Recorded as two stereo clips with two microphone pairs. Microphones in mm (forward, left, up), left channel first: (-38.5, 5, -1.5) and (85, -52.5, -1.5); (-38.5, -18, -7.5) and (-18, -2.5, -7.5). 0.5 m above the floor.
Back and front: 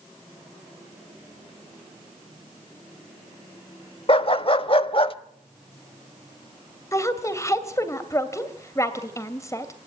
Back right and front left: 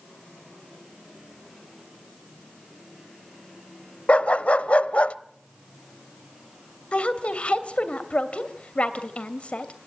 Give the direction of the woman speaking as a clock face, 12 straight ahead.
5 o'clock.